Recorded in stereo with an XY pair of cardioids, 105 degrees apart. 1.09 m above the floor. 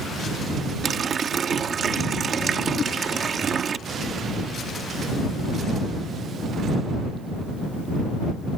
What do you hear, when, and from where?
0.8 s a running tap: 45° right
2.8 s a whoosh: 50° left